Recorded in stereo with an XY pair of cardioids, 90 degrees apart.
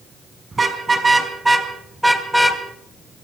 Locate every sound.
0.5 s a car horn: 30° right, 5 m; by 2.6 s 10° left, 3 m